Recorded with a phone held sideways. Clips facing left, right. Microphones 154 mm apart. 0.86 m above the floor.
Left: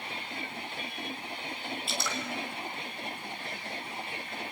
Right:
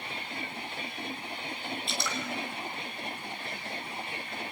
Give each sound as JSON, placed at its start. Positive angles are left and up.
{"t": 1.9, "sound": "dripping", "side_deg": 5, "distance_m": 5.0}